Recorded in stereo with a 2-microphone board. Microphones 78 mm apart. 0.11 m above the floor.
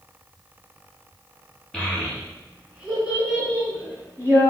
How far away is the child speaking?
About 1.1 m.